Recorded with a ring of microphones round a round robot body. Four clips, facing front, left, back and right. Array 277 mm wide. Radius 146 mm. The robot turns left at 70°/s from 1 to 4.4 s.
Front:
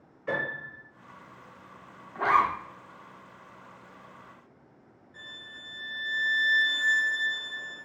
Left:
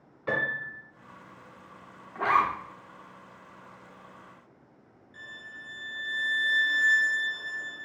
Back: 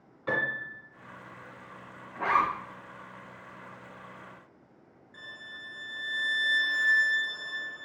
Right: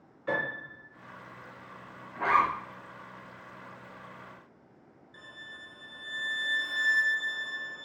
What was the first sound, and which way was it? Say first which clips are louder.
A piano: left 2 dB, back 1 dB; 130° left.